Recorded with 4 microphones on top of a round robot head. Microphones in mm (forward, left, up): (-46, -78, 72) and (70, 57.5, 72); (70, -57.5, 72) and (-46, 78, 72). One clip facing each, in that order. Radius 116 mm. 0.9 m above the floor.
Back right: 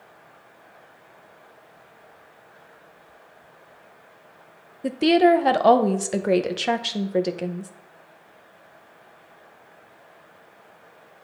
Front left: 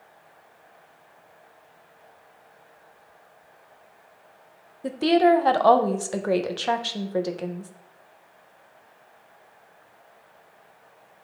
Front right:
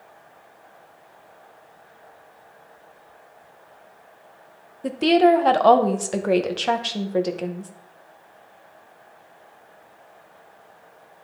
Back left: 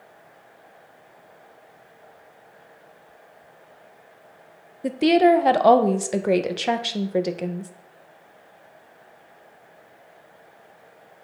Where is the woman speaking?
170° right, 0.8 m.